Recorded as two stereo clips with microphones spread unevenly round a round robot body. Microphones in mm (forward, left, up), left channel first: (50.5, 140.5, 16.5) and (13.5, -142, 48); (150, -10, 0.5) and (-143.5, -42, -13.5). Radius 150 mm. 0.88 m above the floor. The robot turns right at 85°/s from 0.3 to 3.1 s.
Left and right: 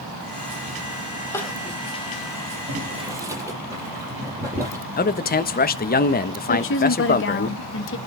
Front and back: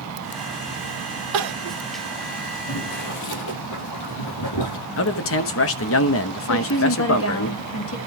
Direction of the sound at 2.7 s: 55° right.